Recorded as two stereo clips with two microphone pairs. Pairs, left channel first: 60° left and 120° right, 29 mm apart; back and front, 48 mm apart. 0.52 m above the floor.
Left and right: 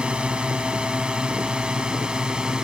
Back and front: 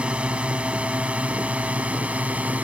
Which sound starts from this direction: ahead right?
A drone, at 0.0 s.